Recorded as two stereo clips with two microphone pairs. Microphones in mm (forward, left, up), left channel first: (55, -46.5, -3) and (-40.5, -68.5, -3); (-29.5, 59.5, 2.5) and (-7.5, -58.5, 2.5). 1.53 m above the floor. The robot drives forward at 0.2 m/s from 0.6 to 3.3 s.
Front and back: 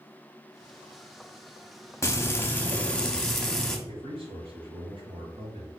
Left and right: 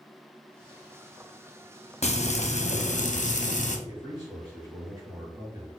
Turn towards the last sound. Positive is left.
turn(degrees=-140)